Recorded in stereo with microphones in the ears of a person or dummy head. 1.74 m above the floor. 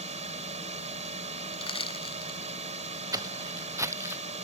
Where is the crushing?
25° left (ahead or behind).